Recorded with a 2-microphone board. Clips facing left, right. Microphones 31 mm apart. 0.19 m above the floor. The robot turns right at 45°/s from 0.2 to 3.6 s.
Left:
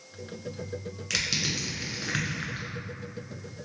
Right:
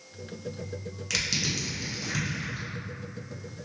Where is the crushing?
5° left (ahead or behind), 1.0 m; by 2.7 s 60° left (ahead or behind), 1.0 m.